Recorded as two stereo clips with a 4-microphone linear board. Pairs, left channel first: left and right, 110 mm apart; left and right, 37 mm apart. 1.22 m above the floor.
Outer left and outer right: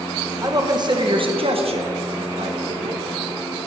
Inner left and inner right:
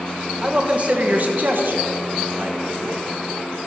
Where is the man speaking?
30° right (ahead or behind), 1.2 m; by 3.0 s 70° right (ahead or behind), 1.4 m.